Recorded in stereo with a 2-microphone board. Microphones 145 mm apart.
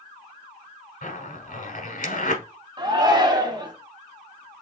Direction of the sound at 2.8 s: 30° right (ahead or behind).